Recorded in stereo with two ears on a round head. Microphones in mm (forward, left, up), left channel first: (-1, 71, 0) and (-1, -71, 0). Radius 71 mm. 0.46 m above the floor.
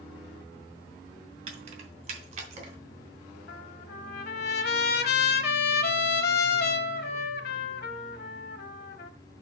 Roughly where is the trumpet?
Left.